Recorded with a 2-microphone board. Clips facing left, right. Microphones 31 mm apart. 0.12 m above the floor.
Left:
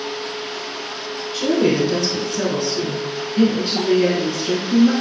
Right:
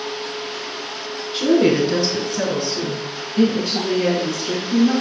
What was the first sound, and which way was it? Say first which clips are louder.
A woman speaking: right 2 dB; 30° right (ahead or behind).